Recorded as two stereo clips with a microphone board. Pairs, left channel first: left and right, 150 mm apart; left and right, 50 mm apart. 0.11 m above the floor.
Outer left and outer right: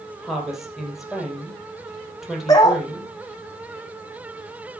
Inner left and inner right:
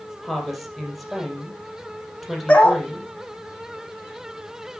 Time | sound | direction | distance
0.2 | a woman speaking | centre (ahead or behind) | 3.5 m
2.5 | a dog barking | 25° left (ahead or behind) | 1.8 m